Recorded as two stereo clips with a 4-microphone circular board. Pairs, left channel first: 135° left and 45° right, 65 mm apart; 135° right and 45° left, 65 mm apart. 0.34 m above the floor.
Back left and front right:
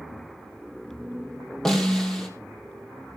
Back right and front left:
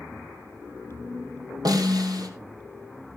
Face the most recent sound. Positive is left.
turn(degrees=55)